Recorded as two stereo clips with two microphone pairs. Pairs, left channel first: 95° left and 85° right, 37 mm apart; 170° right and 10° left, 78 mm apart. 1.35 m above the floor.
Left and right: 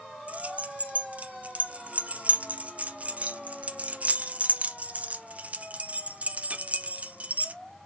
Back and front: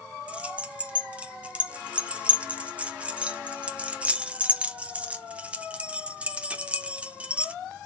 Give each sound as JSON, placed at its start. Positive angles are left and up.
{"t": 0.3, "sound": "keys jangling", "azimuth_deg": -60, "distance_m": 0.5}